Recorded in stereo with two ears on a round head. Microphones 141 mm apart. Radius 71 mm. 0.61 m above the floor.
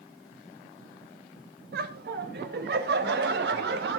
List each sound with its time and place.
1.7 s laughter: 70° right (ahead or behind), 3 m; by 4.0 s 75° right (ahead or behind), 4 m